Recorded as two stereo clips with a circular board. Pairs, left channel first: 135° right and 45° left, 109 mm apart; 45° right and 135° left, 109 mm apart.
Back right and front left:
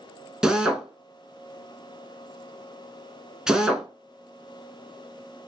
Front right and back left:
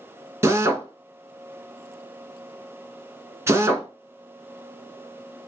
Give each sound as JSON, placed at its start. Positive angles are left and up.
{"t": 0.4, "sound": "a drill", "azimuth_deg": 120, "distance_m": 0.5}